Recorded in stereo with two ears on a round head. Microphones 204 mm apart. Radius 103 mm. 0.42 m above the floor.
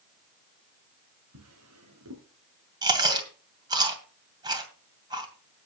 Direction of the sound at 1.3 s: 80° right.